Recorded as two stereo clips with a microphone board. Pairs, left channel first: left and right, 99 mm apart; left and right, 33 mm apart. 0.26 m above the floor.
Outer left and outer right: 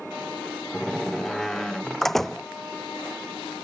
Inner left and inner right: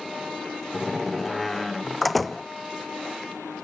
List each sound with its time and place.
0.7 s a door slam: 5° left (ahead or behind)